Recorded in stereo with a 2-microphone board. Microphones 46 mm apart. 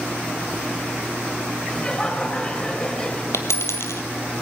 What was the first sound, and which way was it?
Laughter, 20° left (ahead or behind).